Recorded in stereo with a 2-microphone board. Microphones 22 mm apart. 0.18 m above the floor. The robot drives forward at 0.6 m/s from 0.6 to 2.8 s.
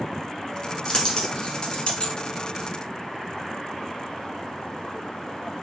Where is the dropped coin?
40° left (ahead or behind), 1.2 m; by 2.1 s 50° left (ahead or behind), 0.9 m.